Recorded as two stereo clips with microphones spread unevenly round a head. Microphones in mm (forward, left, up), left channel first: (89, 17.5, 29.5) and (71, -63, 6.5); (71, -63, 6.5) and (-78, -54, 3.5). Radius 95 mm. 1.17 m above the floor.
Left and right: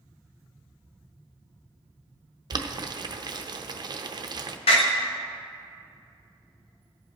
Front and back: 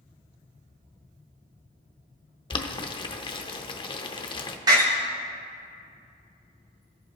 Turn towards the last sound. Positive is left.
turn(degrees=105)